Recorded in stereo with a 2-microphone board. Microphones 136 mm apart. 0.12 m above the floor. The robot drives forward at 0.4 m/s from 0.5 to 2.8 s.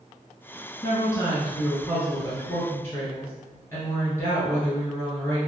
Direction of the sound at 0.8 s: 25° left (ahead or behind).